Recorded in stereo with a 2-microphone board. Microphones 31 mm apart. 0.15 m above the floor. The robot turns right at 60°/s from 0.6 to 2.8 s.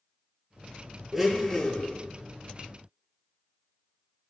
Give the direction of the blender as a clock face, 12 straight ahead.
12 o'clock.